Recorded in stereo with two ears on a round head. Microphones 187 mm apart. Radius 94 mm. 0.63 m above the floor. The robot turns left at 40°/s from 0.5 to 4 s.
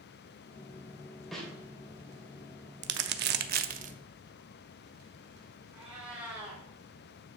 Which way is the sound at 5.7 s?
5° right (ahead or behind).